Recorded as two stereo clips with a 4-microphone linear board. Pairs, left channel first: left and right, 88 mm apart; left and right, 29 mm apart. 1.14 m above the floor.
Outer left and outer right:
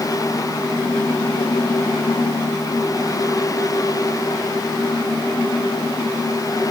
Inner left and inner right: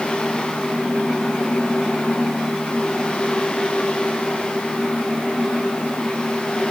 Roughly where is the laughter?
No laughter in this recording.